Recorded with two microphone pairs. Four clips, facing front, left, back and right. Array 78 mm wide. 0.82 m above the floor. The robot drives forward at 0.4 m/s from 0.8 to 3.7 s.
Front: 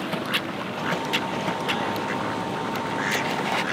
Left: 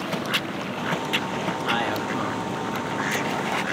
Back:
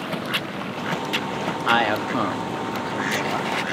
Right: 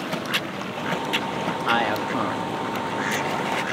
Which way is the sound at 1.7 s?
160° right.